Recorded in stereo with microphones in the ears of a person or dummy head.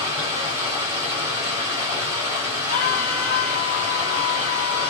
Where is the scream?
45° left (ahead or behind), 1.1 m.